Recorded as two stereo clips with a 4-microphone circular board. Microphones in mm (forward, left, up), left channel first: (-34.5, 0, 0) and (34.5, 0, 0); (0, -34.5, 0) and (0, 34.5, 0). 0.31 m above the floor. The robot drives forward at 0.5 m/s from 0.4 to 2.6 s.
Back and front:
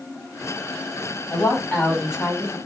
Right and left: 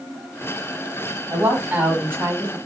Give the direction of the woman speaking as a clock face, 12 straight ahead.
8 o'clock.